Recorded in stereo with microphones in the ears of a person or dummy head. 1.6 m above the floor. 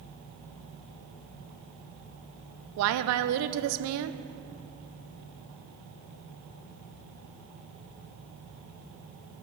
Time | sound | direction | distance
2.8 | a woman speaking | 75° right (ahead or behind) | 0.5 m